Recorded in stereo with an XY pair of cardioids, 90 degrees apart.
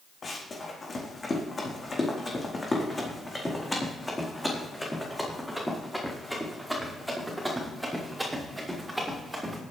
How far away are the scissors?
I don't hear scissors.